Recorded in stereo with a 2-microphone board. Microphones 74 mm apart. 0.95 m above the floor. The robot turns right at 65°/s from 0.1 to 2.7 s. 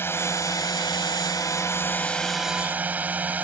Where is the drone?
35° left; by 3.5 s 155° right.